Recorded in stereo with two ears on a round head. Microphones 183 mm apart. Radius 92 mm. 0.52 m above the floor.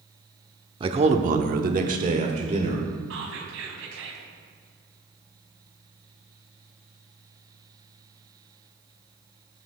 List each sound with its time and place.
0.8 s a man speaking: 25° right (ahead or behind), 1.1 m; by 2.9 s 30° right (ahead or behind), 1.9 m
3.1 s whispering: 70° right (ahead or behind), 4 m